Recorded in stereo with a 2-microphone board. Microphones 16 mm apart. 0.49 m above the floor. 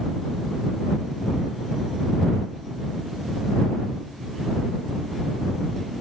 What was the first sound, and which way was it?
Only background noise.